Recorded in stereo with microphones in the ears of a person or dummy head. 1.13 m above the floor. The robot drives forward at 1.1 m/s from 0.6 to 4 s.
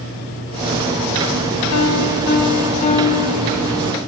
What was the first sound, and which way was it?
A piano, 70° left (ahead or behind).